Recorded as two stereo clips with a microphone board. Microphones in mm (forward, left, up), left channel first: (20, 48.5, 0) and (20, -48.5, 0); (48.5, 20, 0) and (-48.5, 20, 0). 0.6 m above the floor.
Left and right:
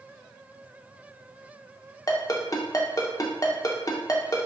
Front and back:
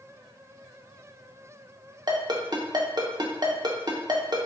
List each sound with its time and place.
2.1 s a ringtone: 140° left, 0.5 m